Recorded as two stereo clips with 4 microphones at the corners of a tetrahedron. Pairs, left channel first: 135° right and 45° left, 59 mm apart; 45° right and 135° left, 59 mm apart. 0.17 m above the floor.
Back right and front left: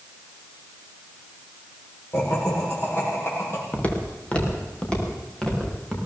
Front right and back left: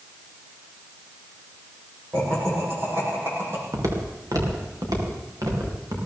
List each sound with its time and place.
2.1 s laughter: 175° right, 7.5 m
3.7 s footsteps: 160° left, 3.5 m; by 6.0 s 145° left, 6 m